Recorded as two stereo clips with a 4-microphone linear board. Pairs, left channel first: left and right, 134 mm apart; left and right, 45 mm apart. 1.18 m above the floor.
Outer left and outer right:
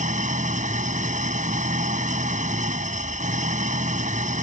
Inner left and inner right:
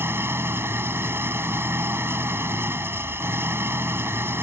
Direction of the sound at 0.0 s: 70° right (ahead or behind).